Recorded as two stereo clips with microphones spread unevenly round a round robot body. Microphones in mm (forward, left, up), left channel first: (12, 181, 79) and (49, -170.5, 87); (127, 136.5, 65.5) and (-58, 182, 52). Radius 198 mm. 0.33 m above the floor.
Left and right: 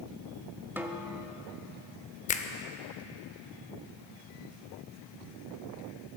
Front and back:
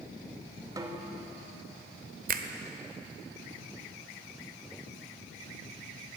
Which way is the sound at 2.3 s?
160° left.